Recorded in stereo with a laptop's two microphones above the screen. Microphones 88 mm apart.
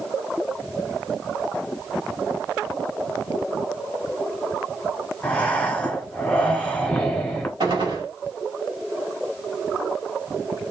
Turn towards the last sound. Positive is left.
turn(degrees=-70)  # may be behind; listen again after turning